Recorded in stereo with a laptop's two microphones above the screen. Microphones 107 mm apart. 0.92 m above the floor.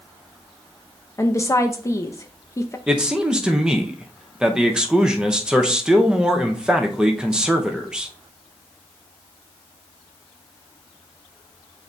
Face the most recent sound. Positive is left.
turn(degrees=-10)  # may be behind; listen again after turning